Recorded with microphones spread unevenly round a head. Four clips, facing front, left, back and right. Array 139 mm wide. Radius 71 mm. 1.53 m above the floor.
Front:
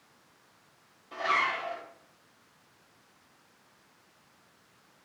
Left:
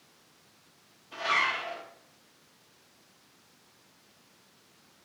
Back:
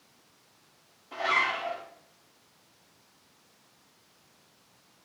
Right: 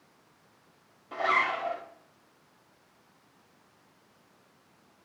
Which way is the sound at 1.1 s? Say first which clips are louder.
Right 2 dB, even; 95° right.